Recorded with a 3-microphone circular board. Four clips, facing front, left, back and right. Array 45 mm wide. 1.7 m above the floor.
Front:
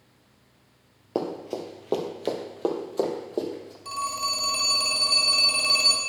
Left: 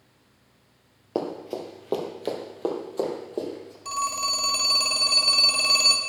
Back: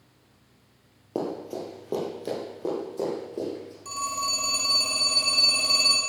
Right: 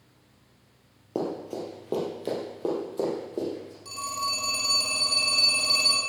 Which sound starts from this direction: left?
A phone ringing, at 3.9 s.